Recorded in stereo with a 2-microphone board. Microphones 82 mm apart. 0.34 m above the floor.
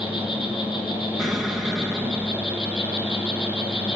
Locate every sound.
0.0 s an insect: 70° left (ahead or behind), 5 m
1.2 s an explosion: 5° right (ahead or behind), 2 m